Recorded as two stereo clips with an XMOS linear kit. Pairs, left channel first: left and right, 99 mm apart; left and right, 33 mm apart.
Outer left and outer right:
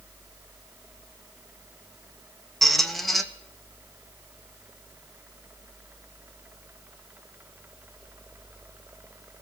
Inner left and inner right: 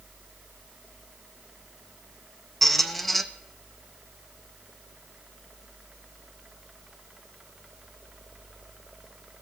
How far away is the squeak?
About 0.8 m.